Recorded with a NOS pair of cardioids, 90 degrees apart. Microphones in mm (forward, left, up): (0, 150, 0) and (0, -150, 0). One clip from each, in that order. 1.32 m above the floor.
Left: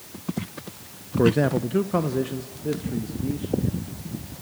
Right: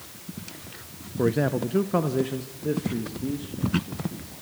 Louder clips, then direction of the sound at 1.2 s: Left 3 dB; 20° left.